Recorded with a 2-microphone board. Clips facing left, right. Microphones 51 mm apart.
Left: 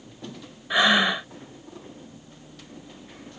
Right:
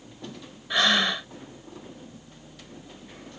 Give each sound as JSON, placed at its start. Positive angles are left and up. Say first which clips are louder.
{"t": 0.7, "sound": "breathing", "louder": "left 3 dB", "side_deg": 15}